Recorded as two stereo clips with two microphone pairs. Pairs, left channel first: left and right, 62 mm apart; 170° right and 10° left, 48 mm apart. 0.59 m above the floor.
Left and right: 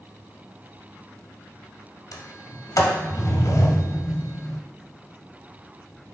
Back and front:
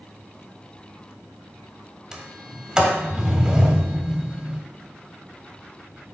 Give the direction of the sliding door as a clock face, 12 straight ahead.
9 o'clock.